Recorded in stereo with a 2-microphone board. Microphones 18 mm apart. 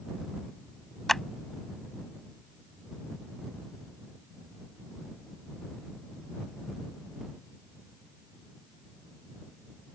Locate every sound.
1.1 s a clap: 15° left (ahead or behind)